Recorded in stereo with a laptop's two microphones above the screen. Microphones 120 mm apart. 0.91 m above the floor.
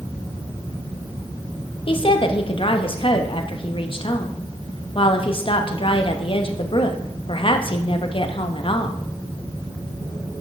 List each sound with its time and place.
1.9 s a woman speaking: 50° left (ahead or behind), 0.8 m